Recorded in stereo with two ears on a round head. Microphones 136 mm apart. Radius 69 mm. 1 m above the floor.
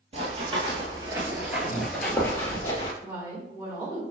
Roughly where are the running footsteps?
Right.